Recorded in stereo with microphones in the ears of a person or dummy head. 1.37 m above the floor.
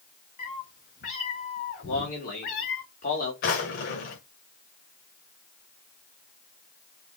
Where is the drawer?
50° left (ahead or behind), 1.6 m.